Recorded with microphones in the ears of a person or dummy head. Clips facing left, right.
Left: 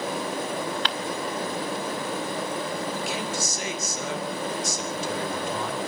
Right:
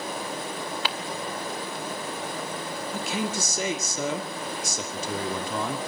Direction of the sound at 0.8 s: 5° right (ahead or behind).